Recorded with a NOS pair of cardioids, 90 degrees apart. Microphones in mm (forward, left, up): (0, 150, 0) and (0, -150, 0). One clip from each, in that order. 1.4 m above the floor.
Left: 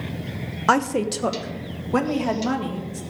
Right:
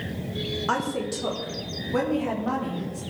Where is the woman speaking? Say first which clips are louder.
Left 9 dB; 50° left, 1.0 m.